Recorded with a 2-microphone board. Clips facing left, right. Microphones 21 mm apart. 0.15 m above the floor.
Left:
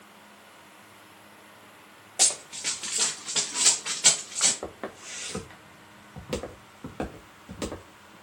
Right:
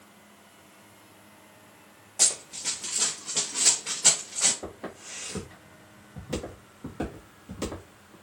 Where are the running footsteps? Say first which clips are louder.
Left 1 dB; 65° left (ahead or behind), 1.0 m; by 4.5 s 55° left (ahead or behind), 1.5 m.